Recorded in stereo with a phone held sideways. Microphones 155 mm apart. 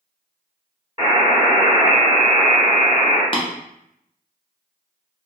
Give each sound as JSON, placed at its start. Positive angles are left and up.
{"t": 1.0, "sound": "a buzzer", "side_deg": -25, "distance_m": 2.0}
{"t": 3.3, "sound": "tapping", "side_deg": 35, "distance_m": 0.7}